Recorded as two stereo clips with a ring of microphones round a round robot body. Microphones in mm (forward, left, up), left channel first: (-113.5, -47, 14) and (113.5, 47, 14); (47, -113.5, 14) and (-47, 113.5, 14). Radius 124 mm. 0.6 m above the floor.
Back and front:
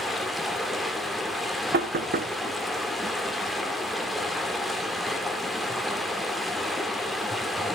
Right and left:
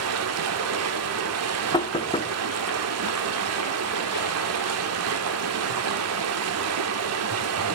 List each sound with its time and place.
0.0 s running water: 115° left, 1.7 m
1.7 s knocking: 5° right, 1.1 m